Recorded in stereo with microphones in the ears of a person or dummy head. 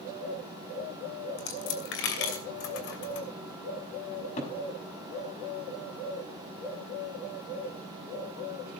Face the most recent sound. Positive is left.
turn(degrees=45)  # may be behind; listen again after turning